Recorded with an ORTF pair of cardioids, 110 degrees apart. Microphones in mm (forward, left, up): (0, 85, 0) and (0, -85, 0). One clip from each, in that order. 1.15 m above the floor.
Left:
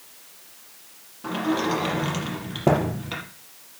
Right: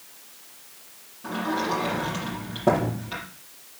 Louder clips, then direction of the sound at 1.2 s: Left 2 dB; 40° left.